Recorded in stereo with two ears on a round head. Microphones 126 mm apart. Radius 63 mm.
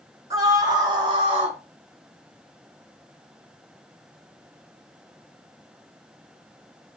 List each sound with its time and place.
0.3 s a scream: 25° right (ahead or behind), 4 m; by 1.6 s 50° right (ahead or behind), 3.5 m